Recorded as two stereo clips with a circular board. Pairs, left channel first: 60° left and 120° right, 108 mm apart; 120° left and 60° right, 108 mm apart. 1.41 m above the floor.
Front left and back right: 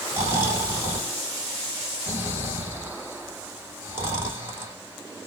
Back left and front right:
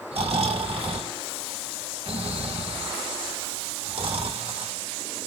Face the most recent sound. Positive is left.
turn(degrees=-55)